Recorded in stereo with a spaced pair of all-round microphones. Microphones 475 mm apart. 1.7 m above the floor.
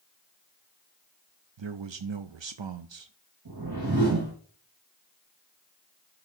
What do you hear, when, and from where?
1.6 s a man speaking: 65° right (ahead or behind), 0.6 m
3.5 s a whoosh: 45° right (ahead or behind), 3 m